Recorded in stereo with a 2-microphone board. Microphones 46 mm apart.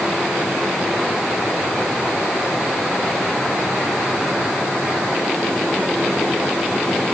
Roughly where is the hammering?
I don't hear hammering.